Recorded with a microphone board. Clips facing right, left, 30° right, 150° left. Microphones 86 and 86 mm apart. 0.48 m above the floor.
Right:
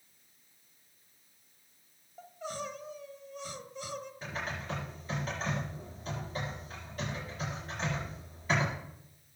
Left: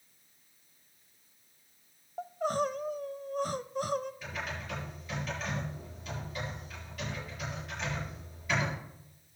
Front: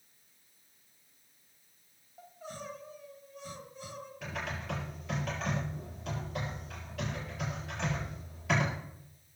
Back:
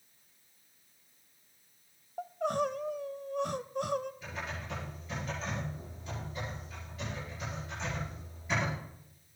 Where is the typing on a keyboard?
40° right, 6 m.